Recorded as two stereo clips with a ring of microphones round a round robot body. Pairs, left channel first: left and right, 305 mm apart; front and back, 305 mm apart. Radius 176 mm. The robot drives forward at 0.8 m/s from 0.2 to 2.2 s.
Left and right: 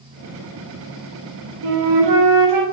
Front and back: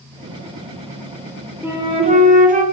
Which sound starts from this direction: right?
A flute, at 1.6 s.